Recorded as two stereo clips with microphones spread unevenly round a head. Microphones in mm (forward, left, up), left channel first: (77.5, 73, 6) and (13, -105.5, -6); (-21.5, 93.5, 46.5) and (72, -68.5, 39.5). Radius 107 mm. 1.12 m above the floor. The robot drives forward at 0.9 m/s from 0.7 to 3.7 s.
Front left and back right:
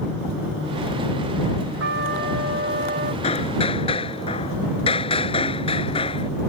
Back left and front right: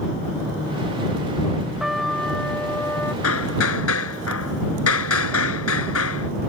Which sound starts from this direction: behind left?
Hammering, at 3.2 s.